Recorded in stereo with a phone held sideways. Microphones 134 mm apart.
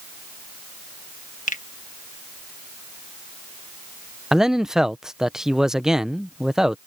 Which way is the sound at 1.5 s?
65° left (ahead or behind).